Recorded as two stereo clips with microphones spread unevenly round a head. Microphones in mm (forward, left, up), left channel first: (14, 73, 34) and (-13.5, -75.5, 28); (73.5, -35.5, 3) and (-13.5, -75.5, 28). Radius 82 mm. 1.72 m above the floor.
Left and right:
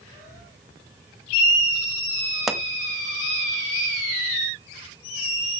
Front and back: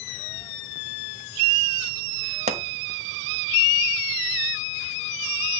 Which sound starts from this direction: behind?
A pop, at 2.5 s.